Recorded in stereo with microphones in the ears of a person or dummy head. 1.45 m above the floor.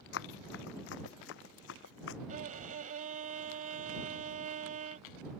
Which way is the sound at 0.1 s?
60° left (ahead or behind).